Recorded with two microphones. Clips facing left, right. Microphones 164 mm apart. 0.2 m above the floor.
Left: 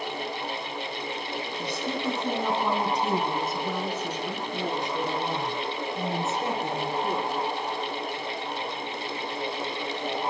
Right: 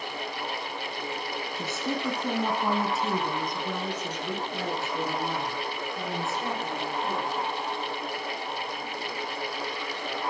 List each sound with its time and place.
1.6 s a woman speaking: 25° right (ahead or behind), 1.3 m; by 7.5 s 25° left (ahead or behind), 4 m